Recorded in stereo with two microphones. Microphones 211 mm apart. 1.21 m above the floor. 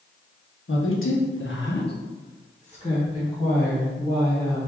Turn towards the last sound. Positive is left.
turn(degrees=10)  # may be behind; listen again after turning